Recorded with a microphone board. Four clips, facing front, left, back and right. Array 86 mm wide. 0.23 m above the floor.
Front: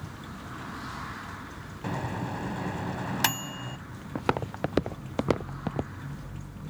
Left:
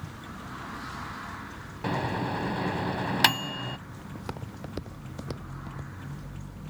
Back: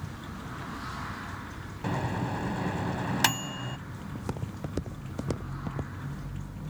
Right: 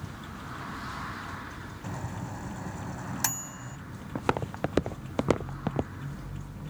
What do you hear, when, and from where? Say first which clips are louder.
1.8 s a microwave: left 10 dB, back 2 dB; 100° left
4.2 s footsteps: right 12 dB, front 10 dB; 40° right; by 5.9 s 60° right